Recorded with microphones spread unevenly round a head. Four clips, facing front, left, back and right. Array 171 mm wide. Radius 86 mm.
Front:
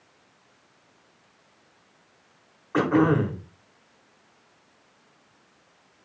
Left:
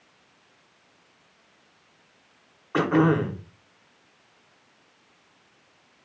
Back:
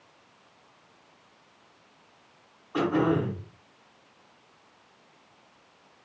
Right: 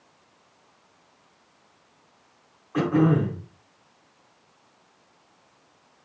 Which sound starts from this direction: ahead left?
Throat clearing, at 2.7 s.